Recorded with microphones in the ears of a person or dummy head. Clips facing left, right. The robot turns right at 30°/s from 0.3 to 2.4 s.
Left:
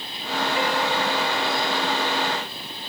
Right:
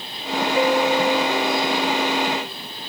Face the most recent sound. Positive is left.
turn(degrees=-95)